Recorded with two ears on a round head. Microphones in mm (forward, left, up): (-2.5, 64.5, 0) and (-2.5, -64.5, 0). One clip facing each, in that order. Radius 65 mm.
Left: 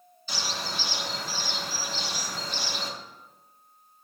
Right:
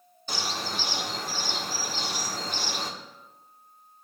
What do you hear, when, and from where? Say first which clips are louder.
0.3 s a bird: right 2 dB; 40° right (ahead or behind), 1.2 m